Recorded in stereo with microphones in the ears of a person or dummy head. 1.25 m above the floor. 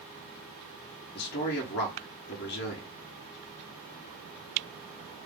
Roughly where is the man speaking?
Left.